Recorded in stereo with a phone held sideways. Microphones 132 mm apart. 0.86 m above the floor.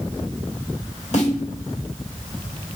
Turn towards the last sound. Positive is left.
turn(degrees=60)  # may be behind; listen again after turning